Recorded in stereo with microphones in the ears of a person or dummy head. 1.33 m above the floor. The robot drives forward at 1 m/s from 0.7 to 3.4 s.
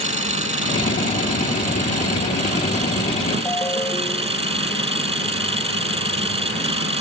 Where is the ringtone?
15° left (ahead or behind).